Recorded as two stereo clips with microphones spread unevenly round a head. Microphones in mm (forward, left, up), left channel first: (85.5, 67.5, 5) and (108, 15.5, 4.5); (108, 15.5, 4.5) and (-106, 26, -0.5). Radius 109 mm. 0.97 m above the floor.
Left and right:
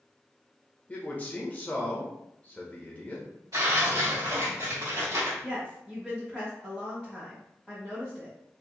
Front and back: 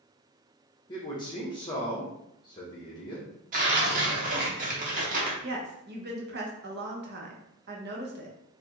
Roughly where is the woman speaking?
Behind.